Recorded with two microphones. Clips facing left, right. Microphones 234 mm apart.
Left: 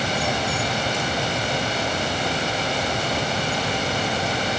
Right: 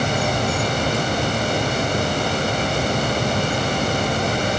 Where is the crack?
No crack in this recording.